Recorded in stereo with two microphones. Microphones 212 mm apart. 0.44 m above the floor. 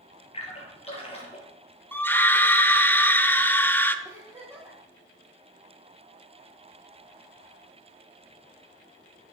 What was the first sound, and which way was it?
A splash, 25° left (ahead or behind).